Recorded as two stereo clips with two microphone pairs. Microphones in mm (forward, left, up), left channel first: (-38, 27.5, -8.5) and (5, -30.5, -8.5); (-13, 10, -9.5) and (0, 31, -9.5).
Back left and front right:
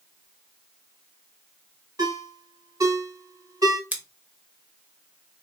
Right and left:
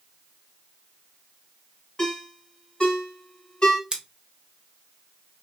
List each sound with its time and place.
2.0 s a ringtone: 70° right, 1.6 m
3.9 s scissors: 10° left, 0.7 m